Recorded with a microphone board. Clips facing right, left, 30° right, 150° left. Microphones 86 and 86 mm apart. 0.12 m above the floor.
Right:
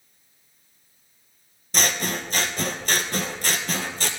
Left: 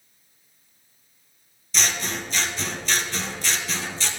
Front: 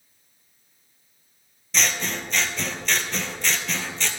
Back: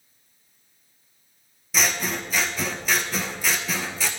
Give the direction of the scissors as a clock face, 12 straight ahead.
4 o'clock.